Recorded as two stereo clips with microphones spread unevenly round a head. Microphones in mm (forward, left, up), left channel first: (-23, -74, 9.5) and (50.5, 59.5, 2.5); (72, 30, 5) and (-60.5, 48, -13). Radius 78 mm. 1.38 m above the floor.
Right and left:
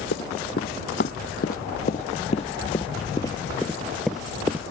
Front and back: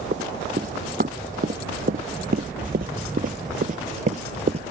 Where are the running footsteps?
140° right; by 4.6 s 135° left.